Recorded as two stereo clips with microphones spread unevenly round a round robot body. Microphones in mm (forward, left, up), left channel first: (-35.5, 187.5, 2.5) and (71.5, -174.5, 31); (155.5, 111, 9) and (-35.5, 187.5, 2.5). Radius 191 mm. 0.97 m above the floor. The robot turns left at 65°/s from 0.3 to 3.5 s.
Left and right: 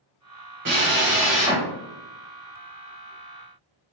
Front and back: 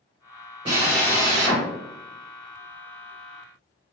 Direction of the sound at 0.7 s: 135° right.